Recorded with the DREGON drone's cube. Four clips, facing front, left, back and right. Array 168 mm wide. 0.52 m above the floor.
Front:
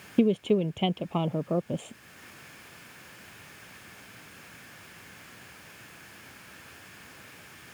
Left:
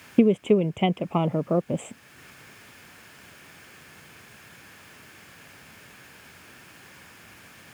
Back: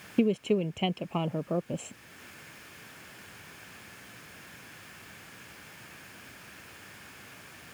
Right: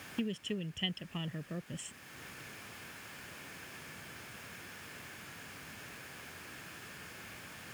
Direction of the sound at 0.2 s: 80° left.